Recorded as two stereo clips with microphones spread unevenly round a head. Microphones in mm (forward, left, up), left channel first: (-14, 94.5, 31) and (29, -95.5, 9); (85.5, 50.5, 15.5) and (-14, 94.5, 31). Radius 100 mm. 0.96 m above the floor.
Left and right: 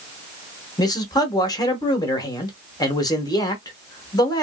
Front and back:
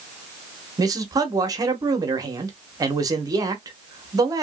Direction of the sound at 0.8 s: 160° left.